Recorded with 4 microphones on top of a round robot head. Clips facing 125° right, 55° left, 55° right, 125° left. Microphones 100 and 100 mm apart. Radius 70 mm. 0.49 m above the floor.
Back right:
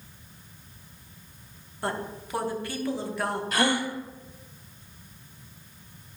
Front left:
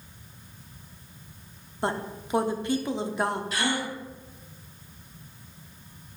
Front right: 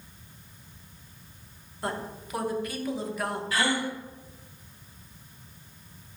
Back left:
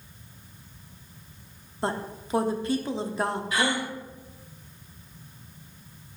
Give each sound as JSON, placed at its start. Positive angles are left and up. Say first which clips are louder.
{"t": 1.8, "sound": "a woman speaking", "louder": "front left 2 dB, back left 3 dB", "azimuth_deg": 100, "distance_m": 1.0}
{"t": 3.5, "sound": "a gasp", "louder": "back right 3 dB, front right 2 dB", "azimuth_deg": -165, "distance_m": 1.4}